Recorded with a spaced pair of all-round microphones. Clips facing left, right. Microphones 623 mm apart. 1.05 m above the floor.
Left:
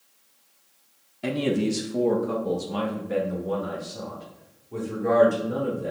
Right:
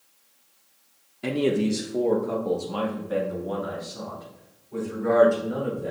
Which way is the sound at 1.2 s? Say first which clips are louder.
Right 1 dB; 5° left (ahead or behind).